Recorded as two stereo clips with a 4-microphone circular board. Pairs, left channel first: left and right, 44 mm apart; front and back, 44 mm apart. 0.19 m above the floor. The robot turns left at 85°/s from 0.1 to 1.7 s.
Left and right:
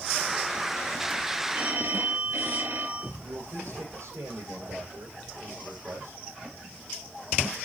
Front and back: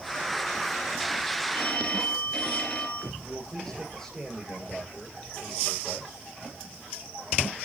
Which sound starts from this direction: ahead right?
A phone ringing, at 1.5 s.